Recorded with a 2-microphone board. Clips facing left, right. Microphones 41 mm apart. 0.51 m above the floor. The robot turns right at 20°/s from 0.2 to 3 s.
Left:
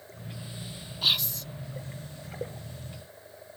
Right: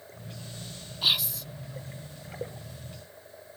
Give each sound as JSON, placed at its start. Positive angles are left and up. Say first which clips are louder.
{"t": 1.0, "sound": "whispering", "louder": "even", "side_deg": -5, "distance_m": 0.7}